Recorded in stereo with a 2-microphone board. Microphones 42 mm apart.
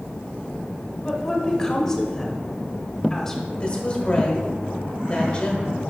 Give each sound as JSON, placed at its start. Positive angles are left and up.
{"t": 1.1, "sound": "a woman speaking", "side_deg": 10, "distance_m": 1.3}
{"t": 3.6, "sound": "a woman speaking", "side_deg": 25, "distance_m": 1.4}